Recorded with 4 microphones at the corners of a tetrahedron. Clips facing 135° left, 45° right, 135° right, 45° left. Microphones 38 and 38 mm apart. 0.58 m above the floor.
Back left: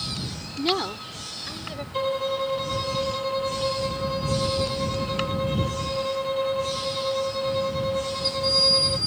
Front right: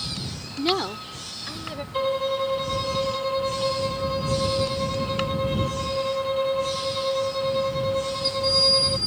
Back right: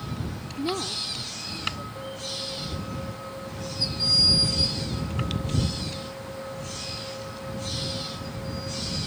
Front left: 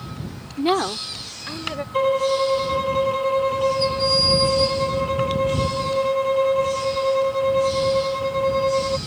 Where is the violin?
40° left.